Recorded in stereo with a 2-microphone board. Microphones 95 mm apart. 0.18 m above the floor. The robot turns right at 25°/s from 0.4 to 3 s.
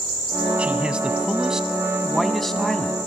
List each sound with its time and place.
0.6 s a man speaking: 10° right (ahead or behind), 1.5 m; by 3.0 s 5° left (ahead or behind), 1.5 m